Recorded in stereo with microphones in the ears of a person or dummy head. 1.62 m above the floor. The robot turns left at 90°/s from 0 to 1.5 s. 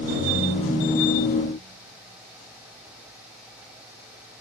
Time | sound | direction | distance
0.1 | a ringtone | 150° right | 1.3 m